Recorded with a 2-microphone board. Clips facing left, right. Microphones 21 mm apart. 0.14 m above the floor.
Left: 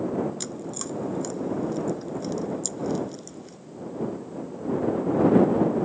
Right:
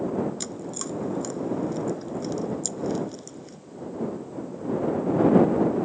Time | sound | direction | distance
0.4 | chewing | centre (ahead or behind) | ?